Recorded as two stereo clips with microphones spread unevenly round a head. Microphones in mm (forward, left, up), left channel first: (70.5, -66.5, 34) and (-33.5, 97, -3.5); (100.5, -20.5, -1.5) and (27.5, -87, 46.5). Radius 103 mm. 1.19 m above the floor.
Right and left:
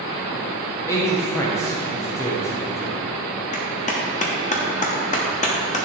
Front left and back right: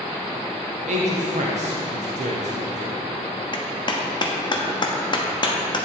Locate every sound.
0.9 s a man speaking: 140° right, 0.9 m
3.5 s a clap: 5° right, 1.1 m